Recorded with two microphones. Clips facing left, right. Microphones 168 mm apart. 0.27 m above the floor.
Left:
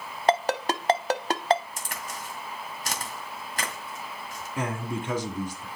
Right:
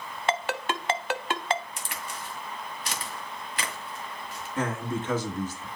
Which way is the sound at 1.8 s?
45° left (ahead or behind).